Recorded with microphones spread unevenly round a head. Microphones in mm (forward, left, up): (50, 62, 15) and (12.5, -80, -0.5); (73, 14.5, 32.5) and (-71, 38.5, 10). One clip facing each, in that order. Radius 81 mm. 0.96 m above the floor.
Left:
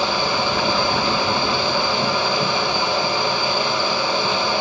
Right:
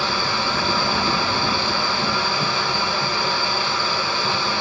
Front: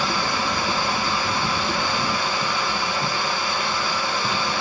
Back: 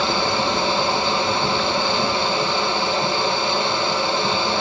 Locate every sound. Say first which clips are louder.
0.0 s a fan: left 3 dB, back 4 dB; 145° left, 1.4 m